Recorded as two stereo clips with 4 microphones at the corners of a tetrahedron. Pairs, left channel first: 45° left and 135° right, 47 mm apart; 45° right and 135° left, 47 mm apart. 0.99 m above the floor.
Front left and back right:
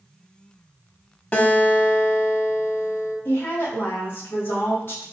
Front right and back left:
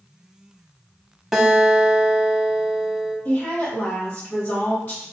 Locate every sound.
1.3 s a guitar: 60° left, 0.9 m
3.2 s a woman speaking: 5° left, 1.9 m